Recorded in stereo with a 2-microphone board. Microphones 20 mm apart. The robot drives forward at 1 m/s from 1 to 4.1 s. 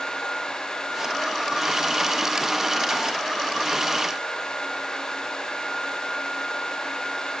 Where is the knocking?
No knocking in this recording.